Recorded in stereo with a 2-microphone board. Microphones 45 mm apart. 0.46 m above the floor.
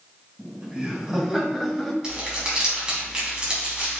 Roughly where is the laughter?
Right.